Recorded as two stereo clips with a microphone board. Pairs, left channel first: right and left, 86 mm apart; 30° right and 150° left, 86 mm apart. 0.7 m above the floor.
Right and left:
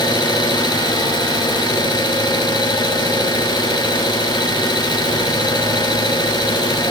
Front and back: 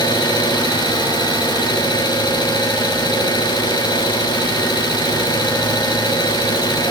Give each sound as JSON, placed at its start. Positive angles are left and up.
{"t": 0.0, "sound": "an engine running", "azimuth_deg": -60, "distance_m": 5.0}